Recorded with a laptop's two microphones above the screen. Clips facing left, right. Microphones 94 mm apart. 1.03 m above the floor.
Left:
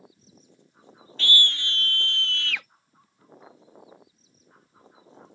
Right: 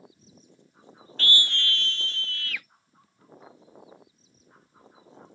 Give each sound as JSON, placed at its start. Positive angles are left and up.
{"t": 1.2, "sound": "a scream", "side_deg": -40}